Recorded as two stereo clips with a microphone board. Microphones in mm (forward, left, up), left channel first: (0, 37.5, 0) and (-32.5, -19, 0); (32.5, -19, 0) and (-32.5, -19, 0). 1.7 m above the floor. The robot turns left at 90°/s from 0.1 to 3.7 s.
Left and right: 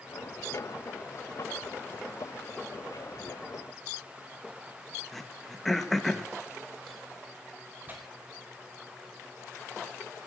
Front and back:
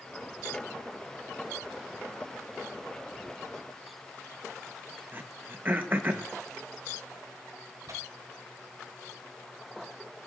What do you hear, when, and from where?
5.1 s throat clearing: 145° left, 0.9 m
7.9 s tearing paper: 175° right, 4 m